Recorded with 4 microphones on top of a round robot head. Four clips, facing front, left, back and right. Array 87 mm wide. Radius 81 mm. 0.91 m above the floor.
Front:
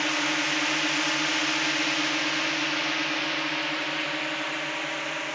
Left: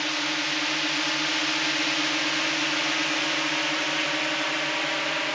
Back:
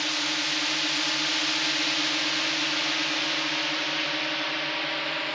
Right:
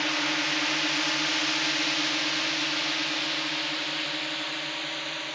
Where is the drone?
10° right; by 5.3 s 95° left.